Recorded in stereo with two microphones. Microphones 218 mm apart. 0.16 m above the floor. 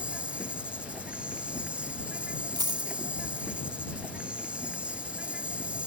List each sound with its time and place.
0.0 s an insect: 5° right (ahead or behind)
2.6 s a dropped coin: 20° right (ahead or behind)